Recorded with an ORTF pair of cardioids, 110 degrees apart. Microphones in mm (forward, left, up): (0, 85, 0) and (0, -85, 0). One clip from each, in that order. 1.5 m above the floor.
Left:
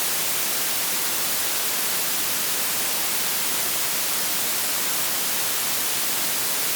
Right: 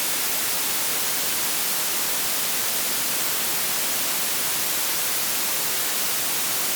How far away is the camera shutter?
No camera shutter in this recording.